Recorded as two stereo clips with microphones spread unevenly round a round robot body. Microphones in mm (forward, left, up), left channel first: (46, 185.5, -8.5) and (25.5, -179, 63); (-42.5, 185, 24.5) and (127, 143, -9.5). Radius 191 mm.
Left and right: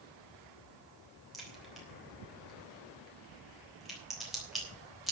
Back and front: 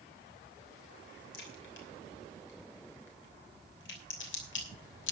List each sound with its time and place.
1.3 s a crack: 170° left, 3 m